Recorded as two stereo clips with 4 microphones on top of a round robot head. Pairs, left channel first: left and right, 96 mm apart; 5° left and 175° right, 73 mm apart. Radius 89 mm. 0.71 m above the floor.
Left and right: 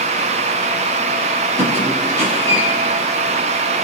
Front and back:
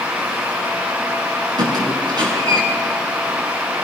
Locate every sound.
1.6 s a squeak: 160° left, 6.5 m